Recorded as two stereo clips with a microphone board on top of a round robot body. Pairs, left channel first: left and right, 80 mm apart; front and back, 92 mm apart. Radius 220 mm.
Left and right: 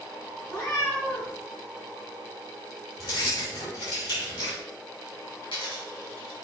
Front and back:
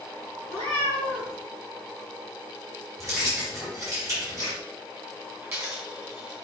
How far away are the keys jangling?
About 3.5 m.